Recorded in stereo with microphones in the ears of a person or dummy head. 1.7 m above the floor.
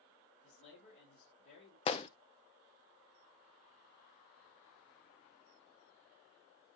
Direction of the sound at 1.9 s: 35° left (ahead or behind).